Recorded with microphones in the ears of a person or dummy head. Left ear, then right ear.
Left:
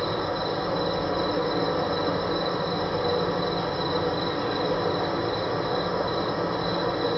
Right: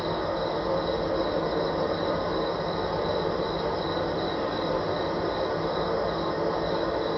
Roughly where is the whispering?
No whispering in this recording.